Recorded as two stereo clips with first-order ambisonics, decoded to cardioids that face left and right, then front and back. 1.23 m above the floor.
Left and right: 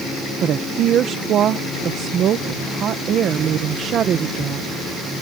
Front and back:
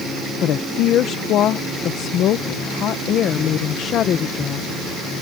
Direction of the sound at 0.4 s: 45° right.